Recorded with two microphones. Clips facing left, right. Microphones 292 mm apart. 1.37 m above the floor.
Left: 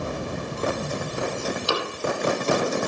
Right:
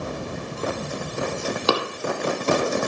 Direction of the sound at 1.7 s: 65° right (ahead or behind).